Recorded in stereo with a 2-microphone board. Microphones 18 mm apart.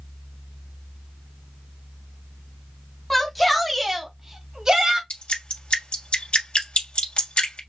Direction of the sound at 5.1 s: 70° left (ahead or behind).